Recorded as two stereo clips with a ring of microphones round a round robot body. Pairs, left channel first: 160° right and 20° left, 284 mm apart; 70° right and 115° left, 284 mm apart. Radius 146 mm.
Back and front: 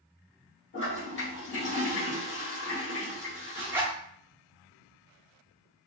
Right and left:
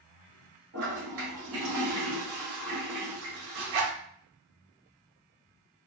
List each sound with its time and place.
0.7 s a toilet flushing: 155° left, 1.5 m
3.5 s a zipper: 105° left, 0.9 m